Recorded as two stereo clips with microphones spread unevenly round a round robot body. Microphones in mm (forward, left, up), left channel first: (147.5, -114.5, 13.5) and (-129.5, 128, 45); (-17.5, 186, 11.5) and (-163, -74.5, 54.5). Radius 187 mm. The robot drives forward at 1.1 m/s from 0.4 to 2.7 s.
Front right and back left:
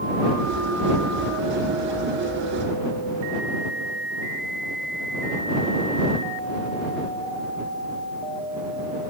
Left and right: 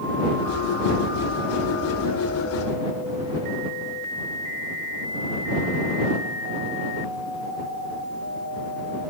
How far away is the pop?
No pop in this recording.